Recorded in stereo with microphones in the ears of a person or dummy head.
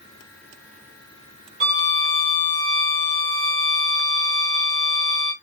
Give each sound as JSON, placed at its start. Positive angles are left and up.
{"t": 1.6, "sound": "a violin", "side_deg": -35, "distance_m": 1.9}